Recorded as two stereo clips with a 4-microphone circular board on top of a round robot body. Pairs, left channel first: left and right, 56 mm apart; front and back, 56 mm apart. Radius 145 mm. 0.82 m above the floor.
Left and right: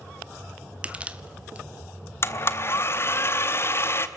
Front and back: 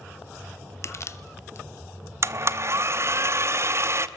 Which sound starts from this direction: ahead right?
Crushing, at 0.8 s.